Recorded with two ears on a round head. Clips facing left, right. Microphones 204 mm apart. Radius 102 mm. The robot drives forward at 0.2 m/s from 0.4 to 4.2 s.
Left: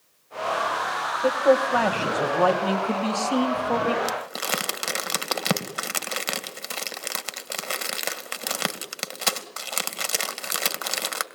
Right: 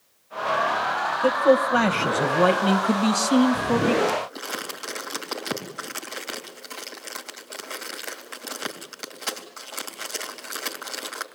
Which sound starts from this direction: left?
Crumpling, at 4.0 s.